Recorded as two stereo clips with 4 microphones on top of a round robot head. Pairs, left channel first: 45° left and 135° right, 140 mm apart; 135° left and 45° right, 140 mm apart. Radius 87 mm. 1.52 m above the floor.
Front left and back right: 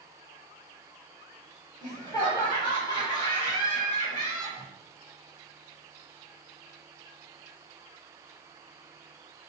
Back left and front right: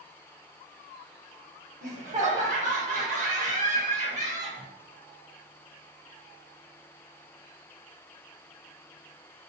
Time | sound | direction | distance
1.8 | laughter | 15° right | 0.7 m